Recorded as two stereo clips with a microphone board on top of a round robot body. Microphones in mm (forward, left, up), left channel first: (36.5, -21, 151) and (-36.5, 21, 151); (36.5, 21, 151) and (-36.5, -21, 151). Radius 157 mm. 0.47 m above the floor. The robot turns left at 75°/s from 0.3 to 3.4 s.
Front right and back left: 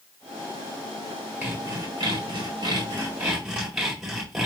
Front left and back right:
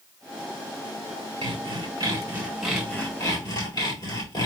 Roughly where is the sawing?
Behind right.